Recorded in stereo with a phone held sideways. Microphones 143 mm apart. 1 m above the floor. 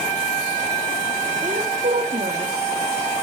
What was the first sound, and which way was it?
A woman speaking, 60° right (ahead or behind).